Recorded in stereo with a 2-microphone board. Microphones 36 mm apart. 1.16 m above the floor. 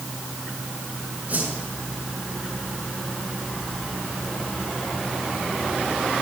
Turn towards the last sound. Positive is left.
turn(degrees=-45)  # may be behind; listen again after turning